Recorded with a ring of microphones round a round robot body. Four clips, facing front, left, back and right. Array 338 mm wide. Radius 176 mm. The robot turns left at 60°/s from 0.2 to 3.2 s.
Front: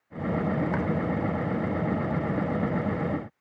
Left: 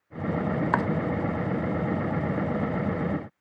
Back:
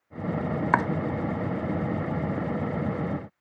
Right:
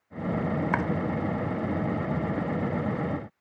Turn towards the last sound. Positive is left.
turn(degrees=20)